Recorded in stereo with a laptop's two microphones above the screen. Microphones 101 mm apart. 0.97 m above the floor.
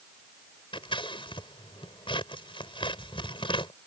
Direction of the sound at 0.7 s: 55° left (ahead or behind).